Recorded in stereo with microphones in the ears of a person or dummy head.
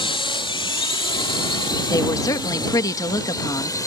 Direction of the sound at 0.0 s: 30° left (ahead or behind).